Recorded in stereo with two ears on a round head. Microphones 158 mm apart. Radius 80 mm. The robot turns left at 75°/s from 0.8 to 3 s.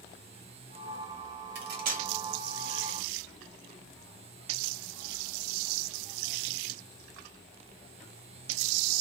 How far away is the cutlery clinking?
About 0.9 m.